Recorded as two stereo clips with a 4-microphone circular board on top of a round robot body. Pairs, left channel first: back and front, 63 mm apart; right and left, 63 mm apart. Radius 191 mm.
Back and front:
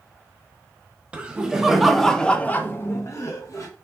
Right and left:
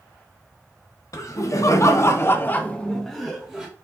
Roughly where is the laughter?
Right.